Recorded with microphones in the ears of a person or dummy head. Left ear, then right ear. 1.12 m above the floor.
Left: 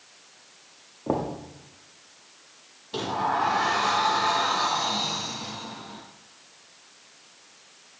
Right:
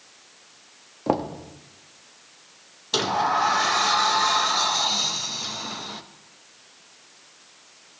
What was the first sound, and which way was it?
Knocking, 60° right (ahead or behind).